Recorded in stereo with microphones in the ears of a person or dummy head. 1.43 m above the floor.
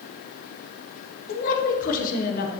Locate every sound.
1.3 s a woman speaking: 50° left (ahead or behind), 1.2 m